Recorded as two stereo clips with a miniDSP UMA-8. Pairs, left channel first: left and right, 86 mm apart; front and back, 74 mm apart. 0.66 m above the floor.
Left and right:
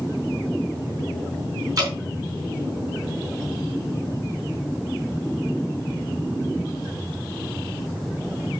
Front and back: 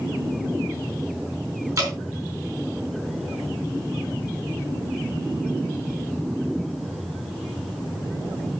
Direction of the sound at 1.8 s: 140° right.